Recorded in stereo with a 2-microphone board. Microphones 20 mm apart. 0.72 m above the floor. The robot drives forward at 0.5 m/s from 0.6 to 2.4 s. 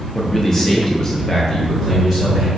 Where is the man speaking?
15° left (ahead or behind), 0.6 m; by 2.5 s 10° left (ahead or behind), 0.8 m.